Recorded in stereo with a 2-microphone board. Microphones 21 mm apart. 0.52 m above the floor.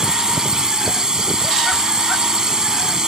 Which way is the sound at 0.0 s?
35° right (ahead or behind).